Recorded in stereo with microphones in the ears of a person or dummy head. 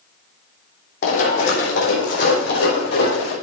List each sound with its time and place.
1.0 s running footsteps: 55° left (ahead or behind), 3 m; by 3.3 s 70° left (ahead or behind), 5.5 m